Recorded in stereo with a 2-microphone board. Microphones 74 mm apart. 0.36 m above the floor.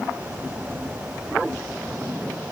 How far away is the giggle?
No giggle in this recording.